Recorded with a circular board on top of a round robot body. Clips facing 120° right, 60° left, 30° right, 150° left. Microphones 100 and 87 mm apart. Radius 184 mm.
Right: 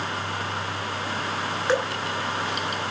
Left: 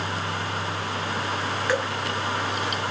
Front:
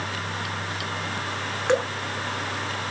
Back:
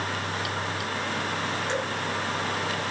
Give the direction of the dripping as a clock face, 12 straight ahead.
2 o'clock.